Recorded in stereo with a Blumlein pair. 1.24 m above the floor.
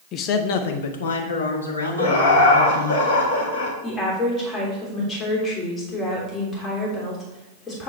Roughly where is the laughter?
Ahead left.